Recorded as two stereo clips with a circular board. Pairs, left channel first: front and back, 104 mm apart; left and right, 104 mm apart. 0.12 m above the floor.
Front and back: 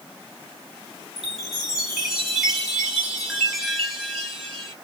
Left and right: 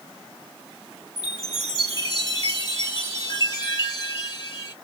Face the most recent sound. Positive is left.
turn(degrees=95)